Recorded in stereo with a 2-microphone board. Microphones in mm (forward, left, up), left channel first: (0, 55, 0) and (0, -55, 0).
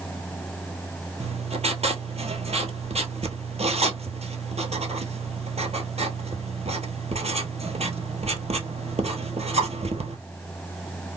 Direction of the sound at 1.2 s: 70° right (ahead or behind).